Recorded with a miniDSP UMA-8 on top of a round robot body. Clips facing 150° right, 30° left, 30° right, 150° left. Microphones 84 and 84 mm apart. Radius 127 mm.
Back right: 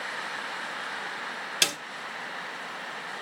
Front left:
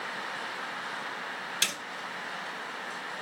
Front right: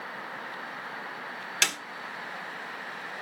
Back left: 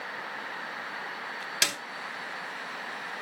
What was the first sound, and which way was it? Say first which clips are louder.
A snare drum: back right 6 dB, front right 2 dB; 130° right.